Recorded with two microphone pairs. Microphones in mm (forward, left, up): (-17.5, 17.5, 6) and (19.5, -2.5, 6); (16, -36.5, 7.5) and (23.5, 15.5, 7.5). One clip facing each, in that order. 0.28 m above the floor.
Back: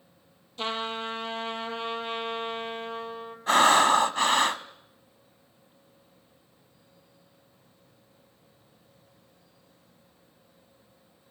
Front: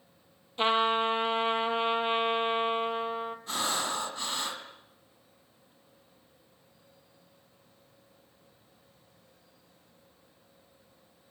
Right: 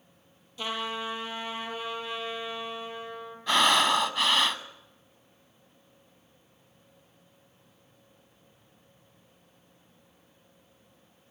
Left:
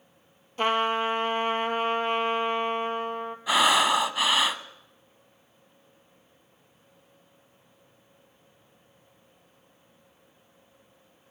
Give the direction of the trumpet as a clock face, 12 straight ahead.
11 o'clock.